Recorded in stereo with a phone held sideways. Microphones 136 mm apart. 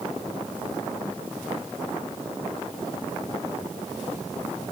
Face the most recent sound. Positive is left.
No sound to turn to.